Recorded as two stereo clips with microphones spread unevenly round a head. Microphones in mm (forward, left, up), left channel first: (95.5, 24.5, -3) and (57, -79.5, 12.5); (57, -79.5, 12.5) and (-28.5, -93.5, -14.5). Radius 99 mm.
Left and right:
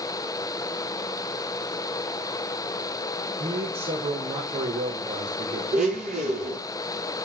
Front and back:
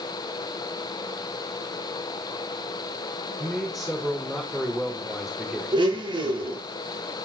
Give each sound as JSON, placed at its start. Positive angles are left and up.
{"t": 3.4, "sound": "a man speaking", "azimuth_deg": -80, "distance_m": 5.0}
{"t": 5.7, "sound": "a blender", "azimuth_deg": -140, "distance_m": 9.0}